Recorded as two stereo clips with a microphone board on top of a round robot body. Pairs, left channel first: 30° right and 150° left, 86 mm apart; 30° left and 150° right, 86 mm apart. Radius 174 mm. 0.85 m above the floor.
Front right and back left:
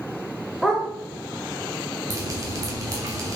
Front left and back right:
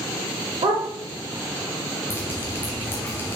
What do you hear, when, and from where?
0.6 s a dog barking: 120° right, 1.1 m
2.1 s dripping: 95° left, 0.5 m